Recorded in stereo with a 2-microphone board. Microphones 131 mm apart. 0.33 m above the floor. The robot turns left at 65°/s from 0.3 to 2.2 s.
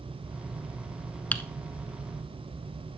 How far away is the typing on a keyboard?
About 1.1 m.